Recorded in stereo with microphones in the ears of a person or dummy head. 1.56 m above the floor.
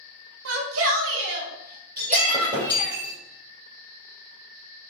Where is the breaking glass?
15° right (ahead or behind), 3.5 m.